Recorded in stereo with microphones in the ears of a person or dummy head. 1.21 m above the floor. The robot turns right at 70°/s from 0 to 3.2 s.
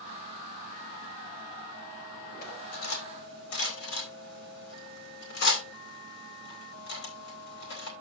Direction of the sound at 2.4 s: 55° left (ahead or behind).